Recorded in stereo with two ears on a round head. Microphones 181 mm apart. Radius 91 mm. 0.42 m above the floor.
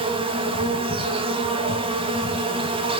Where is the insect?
25° right (ahead or behind), 0.9 m.